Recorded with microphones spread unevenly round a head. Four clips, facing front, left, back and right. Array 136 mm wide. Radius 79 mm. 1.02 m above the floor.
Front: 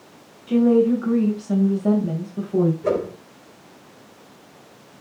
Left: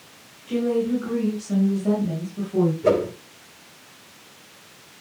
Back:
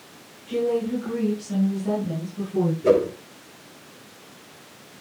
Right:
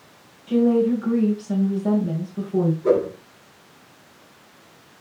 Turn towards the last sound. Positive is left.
turn(degrees=90)